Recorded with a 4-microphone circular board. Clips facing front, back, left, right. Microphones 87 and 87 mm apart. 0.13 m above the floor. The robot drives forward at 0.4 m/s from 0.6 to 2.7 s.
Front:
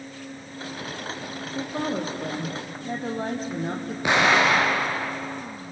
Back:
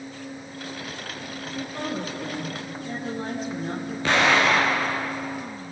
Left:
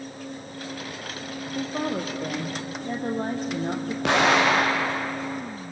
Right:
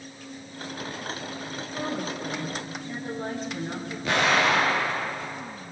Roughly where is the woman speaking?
Ahead left.